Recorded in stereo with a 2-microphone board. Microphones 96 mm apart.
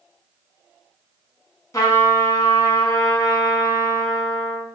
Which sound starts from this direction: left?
A trumpet, at 1.7 s.